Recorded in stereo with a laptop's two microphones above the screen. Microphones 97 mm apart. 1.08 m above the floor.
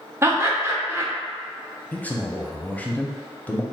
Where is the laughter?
25° right (ahead or behind), 0.5 m.